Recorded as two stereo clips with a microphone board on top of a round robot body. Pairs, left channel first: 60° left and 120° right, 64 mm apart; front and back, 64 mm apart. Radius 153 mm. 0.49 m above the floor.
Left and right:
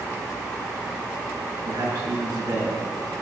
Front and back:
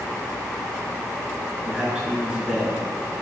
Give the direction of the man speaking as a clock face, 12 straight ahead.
3 o'clock.